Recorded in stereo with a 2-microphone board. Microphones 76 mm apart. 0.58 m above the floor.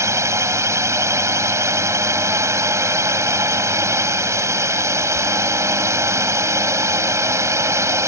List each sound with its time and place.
0.0 s a drone: 40° right (ahead or behind)